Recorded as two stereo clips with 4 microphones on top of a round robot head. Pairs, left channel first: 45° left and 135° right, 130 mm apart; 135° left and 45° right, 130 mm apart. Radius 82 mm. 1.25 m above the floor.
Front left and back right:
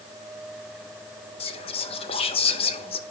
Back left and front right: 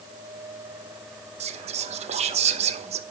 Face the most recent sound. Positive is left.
turn(degrees=-5)